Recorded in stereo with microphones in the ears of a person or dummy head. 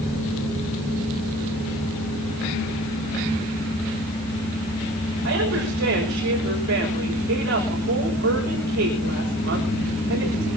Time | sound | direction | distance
5.2 | a woman speaking | 75° right (ahead or behind) | 5.5 m